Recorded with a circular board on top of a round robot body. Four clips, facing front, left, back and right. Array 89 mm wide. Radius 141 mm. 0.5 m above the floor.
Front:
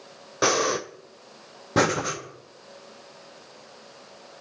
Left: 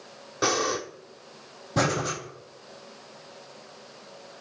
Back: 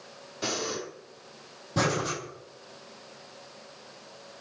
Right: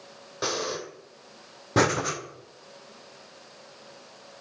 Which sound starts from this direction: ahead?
Breathing, at 0.4 s.